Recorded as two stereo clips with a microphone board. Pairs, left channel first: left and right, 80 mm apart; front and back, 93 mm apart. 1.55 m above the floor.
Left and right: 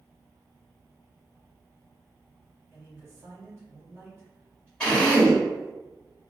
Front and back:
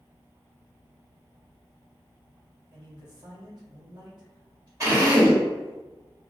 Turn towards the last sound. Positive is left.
turn(degrees=160)